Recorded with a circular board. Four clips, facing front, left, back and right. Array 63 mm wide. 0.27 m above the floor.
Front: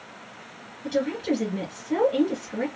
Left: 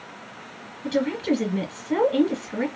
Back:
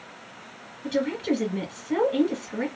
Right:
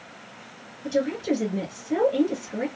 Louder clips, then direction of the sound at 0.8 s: Left 1 dB, even; 110° left.